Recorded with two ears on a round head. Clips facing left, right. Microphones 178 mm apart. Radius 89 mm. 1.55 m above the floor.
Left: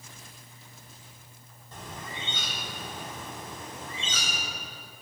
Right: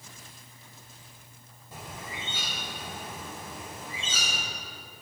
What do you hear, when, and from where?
1.7 s a bird: 10° right (ahead or behind), 2 m